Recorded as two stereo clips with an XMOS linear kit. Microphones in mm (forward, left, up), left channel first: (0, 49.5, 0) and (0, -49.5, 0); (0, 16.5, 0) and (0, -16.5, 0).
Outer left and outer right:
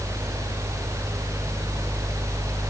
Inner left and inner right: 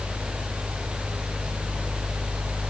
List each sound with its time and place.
Only background noise.